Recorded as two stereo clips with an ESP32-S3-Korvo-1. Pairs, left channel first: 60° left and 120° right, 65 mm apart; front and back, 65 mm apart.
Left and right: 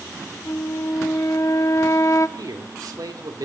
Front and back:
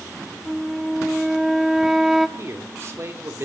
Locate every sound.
0.5 s a flute: 95° left, 0.8 m
2.4 s a man speaking: 130° right, 2 m